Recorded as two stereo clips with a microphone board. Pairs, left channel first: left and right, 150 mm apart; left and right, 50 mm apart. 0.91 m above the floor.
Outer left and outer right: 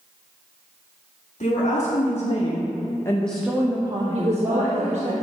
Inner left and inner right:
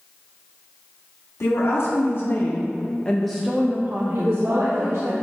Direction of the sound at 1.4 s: 65° left (ahead or behind).